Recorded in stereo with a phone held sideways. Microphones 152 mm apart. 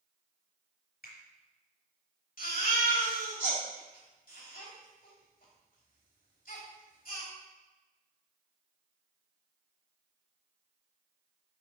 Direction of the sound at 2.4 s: 70° left (ahead or behind).